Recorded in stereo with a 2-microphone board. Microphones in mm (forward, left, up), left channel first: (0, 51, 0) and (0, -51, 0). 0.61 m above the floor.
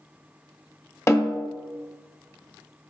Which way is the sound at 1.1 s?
30° left (ahead or behind).